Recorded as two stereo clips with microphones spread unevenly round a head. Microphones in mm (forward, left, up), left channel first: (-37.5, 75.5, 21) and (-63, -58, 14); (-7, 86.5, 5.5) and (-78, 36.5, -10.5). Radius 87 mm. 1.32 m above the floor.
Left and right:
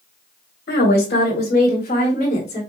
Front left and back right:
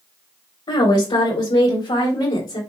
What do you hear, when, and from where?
0.7 s a woman speaking: 50° left, 1.4 m; by 2.6 s 20° left, 2 m